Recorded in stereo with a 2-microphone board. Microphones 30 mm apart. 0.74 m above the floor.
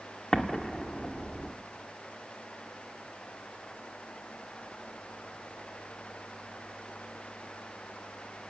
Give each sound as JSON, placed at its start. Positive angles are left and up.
{"t": 0.3, "sound": "an explosion", "side_deg": 15, "distance_m": 1.7}